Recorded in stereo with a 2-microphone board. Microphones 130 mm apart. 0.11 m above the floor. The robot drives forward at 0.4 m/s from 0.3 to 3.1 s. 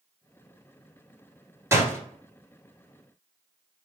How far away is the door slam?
About 1.0 m.